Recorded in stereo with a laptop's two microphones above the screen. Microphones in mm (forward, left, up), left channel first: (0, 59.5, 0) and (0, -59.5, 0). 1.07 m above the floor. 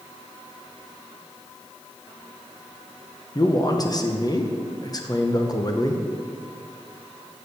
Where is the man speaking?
35° left (ahead or behind), 0.8 m.